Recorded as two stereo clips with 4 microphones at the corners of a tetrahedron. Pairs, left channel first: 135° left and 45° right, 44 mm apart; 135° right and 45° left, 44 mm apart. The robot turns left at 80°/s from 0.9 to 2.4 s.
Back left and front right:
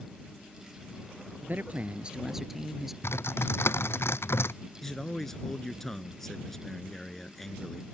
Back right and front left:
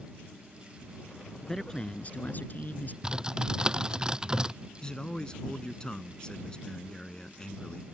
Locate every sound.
1.4 s a man speaking: 45° right; by 2.9 s 125° right
3.0 s typing on a keyboard: 115° left
4.8 s a man speaking: 155° right